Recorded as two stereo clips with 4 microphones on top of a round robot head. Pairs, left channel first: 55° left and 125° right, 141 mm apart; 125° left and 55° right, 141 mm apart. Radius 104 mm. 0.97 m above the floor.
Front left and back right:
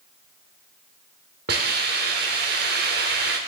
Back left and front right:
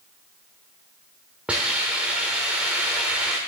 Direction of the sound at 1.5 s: 135° right.